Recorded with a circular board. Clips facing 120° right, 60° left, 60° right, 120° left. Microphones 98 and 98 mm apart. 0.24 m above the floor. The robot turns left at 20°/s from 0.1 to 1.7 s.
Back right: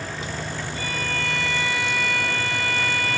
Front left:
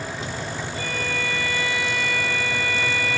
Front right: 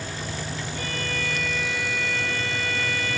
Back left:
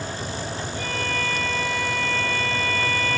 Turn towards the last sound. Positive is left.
turn(degrees=-85)